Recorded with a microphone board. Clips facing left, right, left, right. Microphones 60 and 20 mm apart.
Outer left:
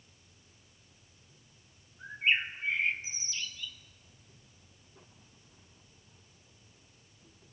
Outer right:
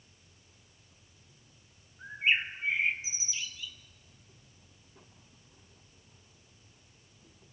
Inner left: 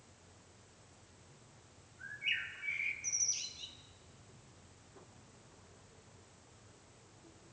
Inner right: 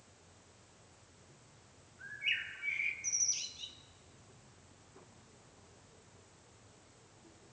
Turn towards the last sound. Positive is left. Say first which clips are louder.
# outer right 1 dB, inner right 1 dB
turn(degrees=-10)  # may be behind; listen again after turning